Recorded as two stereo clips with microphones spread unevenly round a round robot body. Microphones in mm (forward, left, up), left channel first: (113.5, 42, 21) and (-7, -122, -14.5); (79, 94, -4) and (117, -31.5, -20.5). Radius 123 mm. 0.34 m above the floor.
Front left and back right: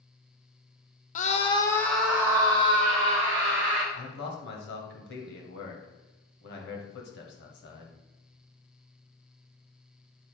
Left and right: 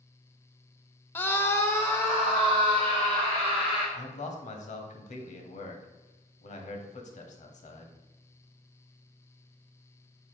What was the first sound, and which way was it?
A scream, 35° left.